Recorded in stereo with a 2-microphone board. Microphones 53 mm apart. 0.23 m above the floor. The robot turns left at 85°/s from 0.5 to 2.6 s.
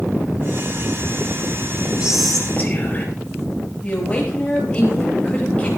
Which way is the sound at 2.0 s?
160° right.